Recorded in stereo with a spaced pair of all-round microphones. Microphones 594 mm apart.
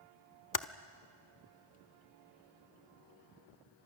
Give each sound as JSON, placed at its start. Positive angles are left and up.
{"t": 0.5, "sound": "typing on a keyboard", "side_deg": 35, "distance_m": 0.6}